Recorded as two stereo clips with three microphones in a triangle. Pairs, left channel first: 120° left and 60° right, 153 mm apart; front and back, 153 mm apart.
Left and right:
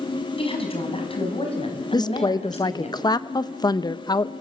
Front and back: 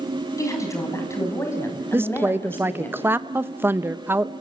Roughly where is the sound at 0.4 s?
Left.